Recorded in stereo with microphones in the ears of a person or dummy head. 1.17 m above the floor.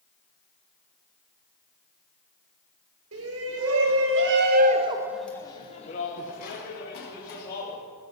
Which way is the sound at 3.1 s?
70° right (ahead or behind).